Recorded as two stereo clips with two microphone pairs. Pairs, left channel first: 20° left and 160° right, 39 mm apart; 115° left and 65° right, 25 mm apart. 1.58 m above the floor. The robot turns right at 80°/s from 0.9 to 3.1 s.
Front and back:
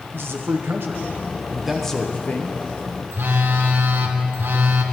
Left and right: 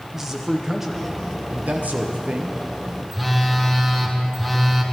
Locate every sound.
0.1 s a man speaking: 140° right, 1.2 m; by 2.6 s 5° right, 1.2 m
3.1 s a phone buzzing: 160° right, 1.4 m